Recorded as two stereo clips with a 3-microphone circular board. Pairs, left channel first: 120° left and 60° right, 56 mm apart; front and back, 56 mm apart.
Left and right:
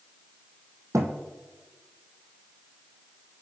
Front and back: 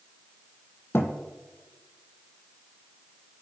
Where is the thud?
45° right, 0.9 m.